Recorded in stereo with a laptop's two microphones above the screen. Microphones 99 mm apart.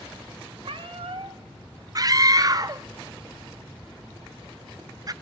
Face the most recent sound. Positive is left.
turn(degrees=-40)  # may be behind; listen again after turning